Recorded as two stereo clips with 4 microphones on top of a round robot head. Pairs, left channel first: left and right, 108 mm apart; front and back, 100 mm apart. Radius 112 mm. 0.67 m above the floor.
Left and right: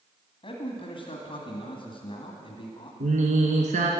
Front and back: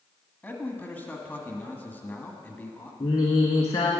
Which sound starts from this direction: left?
A man speaking, at 0.4 s.